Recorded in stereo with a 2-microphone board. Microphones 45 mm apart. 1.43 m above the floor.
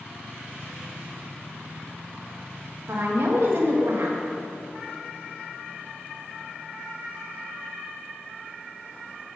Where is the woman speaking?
70° right (ahead or behind), 1.8 m.